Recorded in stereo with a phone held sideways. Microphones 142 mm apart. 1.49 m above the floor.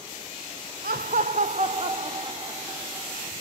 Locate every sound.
0.8 s laughter: 85° right, 0.5 m; by 3.3 s 25° right (ahead or behind), 1.8 m